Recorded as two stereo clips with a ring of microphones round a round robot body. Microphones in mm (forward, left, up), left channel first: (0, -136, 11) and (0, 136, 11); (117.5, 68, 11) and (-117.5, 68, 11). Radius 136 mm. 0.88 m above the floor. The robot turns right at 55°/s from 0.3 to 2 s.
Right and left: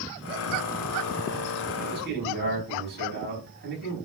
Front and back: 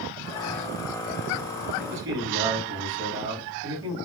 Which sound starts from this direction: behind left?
A man speaking, at 1.8 s.